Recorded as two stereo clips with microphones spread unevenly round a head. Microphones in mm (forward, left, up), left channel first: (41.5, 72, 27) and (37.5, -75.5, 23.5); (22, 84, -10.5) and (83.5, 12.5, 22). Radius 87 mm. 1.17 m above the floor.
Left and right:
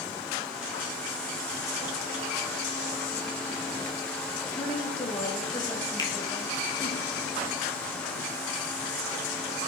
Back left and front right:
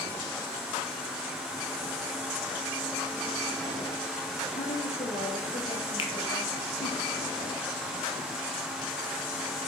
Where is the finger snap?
155° left, 1.2 m.